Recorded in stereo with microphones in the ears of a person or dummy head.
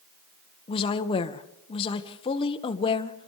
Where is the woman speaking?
30° left (ahead or behind), 1.8 m.